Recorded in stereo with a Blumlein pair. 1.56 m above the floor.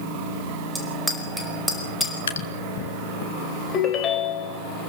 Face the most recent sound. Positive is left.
turn(degrees=25)